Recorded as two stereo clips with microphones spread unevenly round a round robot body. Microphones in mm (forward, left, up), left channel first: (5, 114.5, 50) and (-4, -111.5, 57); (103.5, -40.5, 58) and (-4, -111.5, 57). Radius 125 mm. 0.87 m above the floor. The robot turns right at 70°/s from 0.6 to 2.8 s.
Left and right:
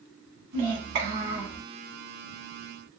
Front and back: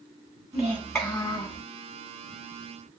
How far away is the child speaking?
About 1.4 m.